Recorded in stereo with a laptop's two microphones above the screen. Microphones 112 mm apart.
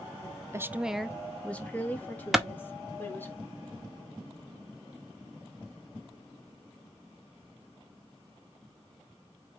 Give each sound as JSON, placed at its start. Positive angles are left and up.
{"t": 0.5, "sound": "a woman speaking", "side_deg": -25, "distance_m": 0.5}
{"t": 2.3, "sound": "a clap", "side_deg": -5, "distance_m": 1.0}